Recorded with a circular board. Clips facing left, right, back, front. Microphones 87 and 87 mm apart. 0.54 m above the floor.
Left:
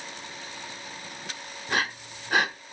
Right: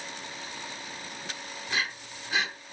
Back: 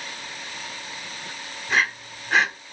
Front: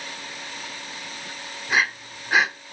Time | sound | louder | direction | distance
1.7 | breathing | left 5 dB, even | 85° left | 0.7 m